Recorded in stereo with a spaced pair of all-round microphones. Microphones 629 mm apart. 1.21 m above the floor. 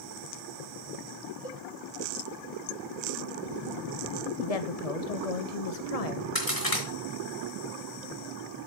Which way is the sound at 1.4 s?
5° right (ahead or behind).